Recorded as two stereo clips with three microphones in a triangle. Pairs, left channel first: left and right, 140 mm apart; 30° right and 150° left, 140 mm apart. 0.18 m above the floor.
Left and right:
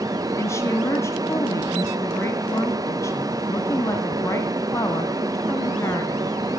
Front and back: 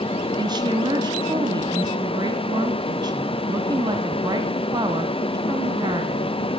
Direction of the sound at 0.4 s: 140° left.